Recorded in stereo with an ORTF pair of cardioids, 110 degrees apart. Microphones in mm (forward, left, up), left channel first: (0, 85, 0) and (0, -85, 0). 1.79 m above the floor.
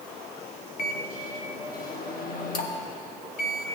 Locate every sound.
0.8 s a microwave: 60° left, 1.2 m